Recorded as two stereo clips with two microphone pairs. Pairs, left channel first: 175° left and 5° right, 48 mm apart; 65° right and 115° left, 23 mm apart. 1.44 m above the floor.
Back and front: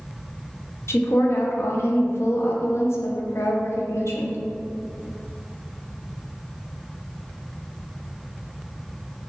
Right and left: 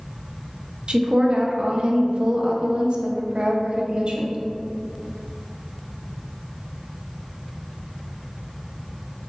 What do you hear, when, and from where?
0.9 s a woman speaking: 150° left, 0.6 m